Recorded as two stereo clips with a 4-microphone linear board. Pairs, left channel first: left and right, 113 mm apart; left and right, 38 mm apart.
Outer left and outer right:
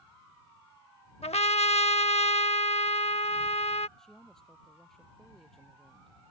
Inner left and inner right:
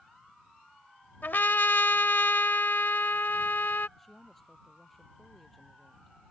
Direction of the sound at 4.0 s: 5° left (ahead or behind).